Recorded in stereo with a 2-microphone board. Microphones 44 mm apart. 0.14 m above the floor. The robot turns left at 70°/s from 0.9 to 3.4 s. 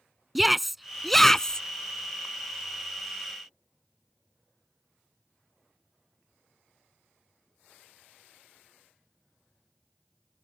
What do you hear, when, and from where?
0.3 s a shout: centre (ahead or behind); by 1.6 s 20° left (ahead or behind)